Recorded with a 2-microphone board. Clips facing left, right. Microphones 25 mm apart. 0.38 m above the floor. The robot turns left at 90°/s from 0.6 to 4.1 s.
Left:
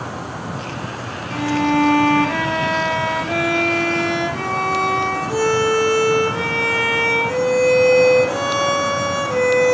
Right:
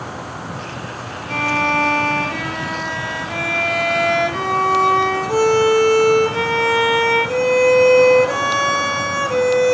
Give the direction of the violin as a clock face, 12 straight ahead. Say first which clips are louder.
Right 1 dB; 4 o'clock.